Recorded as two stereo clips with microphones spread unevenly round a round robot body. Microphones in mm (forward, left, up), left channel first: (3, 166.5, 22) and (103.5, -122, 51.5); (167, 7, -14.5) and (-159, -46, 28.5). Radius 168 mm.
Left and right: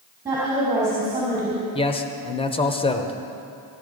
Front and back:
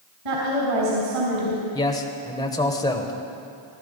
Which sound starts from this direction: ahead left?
A man speaking, at 1.8 s.